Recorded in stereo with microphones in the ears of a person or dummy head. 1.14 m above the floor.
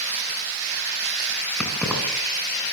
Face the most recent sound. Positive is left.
turn(degrees=5)  # may be behind; listen again after turning